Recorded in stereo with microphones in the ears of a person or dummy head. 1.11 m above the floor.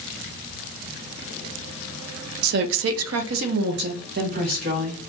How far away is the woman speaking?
About 0.5 m.